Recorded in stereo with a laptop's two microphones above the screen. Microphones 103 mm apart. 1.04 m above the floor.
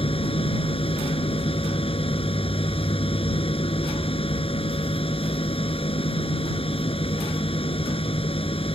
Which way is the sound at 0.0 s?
65° left (ahead or behind).